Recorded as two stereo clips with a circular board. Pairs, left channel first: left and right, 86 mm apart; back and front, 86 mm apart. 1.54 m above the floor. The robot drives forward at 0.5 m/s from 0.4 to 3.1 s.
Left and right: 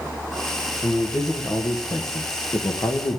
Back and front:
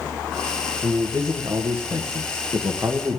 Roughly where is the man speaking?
Ahead left.